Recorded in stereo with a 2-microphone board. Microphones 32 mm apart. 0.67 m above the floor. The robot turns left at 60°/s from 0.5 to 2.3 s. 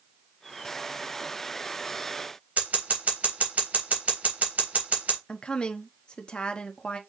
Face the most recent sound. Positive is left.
turn(degrees=30)  # may be behind; listen again after turning